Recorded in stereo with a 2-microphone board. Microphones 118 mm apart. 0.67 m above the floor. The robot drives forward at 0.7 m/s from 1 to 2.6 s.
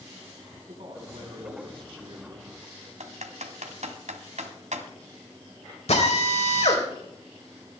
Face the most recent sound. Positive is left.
turn(degrees=65)  # may be behind; listen again after turning